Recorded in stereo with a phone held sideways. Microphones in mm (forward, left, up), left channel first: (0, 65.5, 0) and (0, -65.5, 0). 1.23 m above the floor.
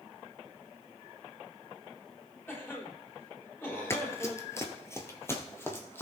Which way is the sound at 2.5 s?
20° left (ahead or behind).